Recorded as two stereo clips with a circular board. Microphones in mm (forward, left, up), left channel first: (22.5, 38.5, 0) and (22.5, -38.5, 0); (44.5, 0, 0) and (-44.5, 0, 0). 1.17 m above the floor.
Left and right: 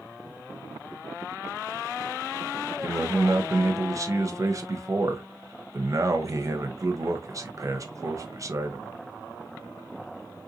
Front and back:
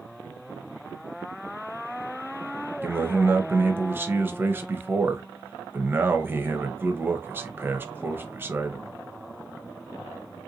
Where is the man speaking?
120° right, 0.8 m.